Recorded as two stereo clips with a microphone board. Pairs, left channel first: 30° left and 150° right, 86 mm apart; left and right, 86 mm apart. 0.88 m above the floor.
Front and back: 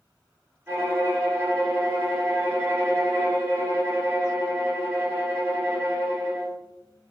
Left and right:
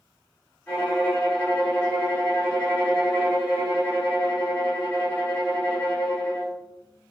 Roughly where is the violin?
Behind.